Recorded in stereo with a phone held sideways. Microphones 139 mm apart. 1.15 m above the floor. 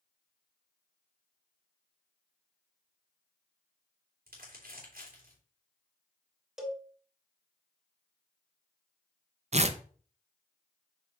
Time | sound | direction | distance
4.3 | crumpling | 80° right | 3 m
6.6 | a cowbell | 5° right (ahead or behind) | 1.1 m
9.5 | tearing paper | 50° right (ahead or behind) | 0.5 m